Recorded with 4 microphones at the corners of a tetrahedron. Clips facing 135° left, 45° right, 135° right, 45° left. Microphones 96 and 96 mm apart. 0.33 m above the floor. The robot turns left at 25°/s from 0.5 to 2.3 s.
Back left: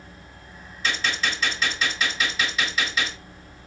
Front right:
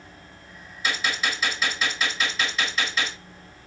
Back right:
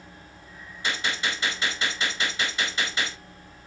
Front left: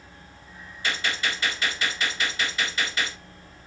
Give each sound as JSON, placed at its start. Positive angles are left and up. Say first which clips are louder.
{"t": 0.8, "sound": "a gunshot", "louder": "even, even", "azimuth_deg": -110, "distance_m": 1.6}